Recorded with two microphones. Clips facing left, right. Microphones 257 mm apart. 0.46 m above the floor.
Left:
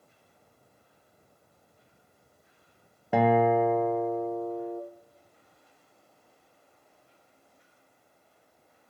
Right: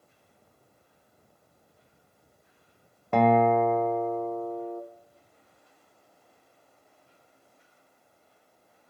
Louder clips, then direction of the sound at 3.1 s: Right 1 dB; 10° left (ahead or behind).